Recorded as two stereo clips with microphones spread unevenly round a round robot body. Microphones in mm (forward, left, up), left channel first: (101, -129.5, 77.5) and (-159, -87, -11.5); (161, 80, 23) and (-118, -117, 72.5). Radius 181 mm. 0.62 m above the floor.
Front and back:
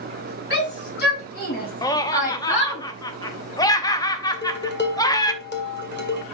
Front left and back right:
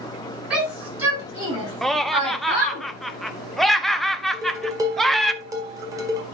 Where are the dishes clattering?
60° right, 2.0 m.